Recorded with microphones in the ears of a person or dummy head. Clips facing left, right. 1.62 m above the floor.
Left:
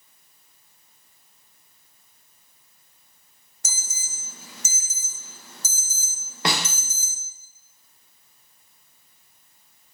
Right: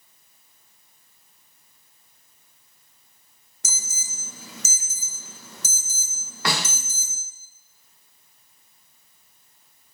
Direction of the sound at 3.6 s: 70° right (ahead or behind).